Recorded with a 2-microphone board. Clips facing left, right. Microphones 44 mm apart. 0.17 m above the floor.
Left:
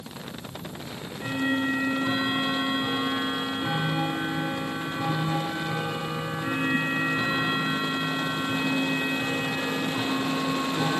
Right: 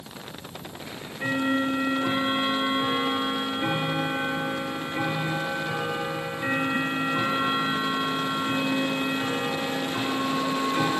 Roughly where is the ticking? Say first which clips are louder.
Right 6 dB; right.